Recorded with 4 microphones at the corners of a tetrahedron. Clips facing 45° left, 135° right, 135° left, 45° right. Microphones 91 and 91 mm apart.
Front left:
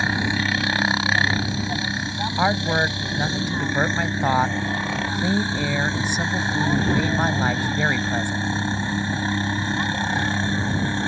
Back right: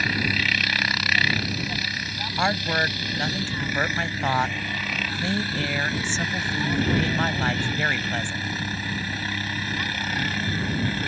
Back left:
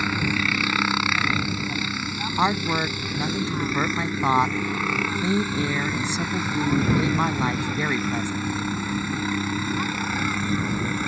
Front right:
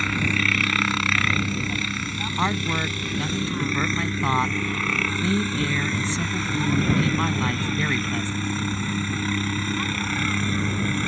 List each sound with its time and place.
0.0 s a helicopter: 70° left
2.4 s a woman speaking: 100° left